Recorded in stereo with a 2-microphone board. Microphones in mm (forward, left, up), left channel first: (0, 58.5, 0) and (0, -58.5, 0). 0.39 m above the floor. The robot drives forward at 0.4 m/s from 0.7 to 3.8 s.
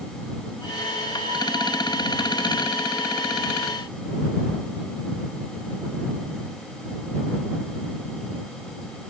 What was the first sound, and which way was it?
Only background noise.